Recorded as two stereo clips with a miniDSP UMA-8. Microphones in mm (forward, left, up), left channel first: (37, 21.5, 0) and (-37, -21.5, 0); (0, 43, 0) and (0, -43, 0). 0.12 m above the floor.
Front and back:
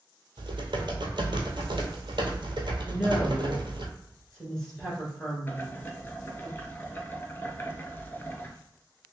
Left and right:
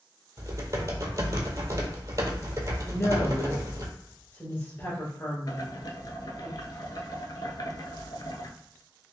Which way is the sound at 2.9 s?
105° left.